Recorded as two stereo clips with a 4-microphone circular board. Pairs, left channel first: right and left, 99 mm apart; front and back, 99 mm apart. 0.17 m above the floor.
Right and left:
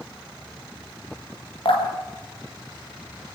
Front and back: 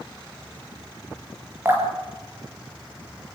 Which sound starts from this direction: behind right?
Dripping, at 1.6 s.